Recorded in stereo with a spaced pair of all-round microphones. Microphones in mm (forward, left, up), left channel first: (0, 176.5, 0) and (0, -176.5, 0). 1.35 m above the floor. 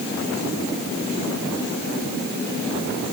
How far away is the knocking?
No knocking in this recording.